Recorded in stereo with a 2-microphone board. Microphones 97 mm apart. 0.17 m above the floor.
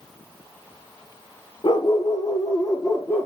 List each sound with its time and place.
1.6 s a dog barking: 55° left (ahead or behind), 1.7 m; by 3.3 s 20° left (ahead or behind), 1.4 m